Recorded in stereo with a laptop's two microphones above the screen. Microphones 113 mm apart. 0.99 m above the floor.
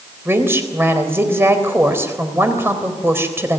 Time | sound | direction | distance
0.2 | a woman speaking | 20° right (ahead or behind) | 4 m